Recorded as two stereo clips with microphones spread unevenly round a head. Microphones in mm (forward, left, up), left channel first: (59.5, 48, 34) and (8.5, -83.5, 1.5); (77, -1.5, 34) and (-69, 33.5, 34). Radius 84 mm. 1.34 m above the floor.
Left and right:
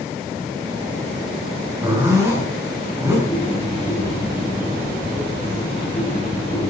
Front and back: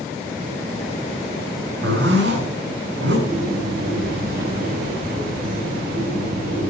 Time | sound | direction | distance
1.8 | a zipper | 170° left | 6 m
3.3 | a bird | 145° left | 7.5 m